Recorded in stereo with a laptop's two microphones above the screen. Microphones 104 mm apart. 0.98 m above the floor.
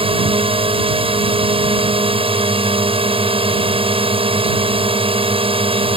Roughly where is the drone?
Right.